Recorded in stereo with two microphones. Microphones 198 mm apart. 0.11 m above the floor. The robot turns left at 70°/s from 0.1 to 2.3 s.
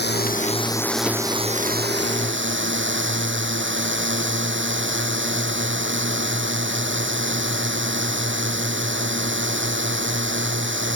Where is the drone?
65° left; by 11.0 s 90° right.